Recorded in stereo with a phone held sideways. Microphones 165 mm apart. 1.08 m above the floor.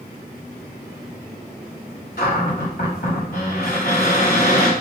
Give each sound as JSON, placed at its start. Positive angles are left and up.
{"t": 2.2, "sound": "a cupboard door", "side_deg": 65, "distance_m": 3.0}